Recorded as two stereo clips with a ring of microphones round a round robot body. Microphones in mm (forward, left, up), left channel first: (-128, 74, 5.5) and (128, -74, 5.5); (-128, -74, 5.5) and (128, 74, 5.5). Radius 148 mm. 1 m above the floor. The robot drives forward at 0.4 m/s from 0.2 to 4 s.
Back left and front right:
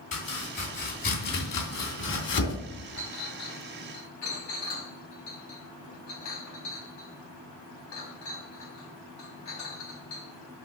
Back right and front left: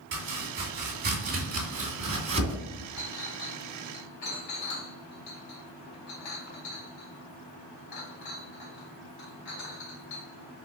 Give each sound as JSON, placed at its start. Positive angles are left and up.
{"t": 0.1, "sound": "chopping", "azimuth_deg": 85, "distance_m": 3.0}
{"t": 3.0, "sound": "a clink", "azimuth_deg": -170, "distance_m": 3.5}